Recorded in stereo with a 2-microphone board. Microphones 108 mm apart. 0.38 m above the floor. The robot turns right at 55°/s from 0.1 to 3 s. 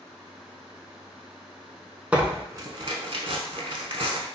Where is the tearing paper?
10° right (ahead or behind), 0.5 m; by 4.3 s 55° right (ahead or behind), 0.5 m.